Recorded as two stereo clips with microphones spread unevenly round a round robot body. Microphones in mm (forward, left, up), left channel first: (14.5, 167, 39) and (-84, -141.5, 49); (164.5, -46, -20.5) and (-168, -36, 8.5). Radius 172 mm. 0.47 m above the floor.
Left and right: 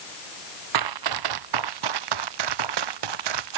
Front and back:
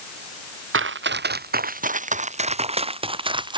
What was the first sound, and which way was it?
Running footsteps, 130° right.